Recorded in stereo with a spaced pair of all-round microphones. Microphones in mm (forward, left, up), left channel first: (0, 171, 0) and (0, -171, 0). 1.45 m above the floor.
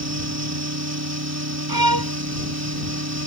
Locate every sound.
0.0 s a fan: 45° right (ahead or behind)
1.7 s a violin: 80° right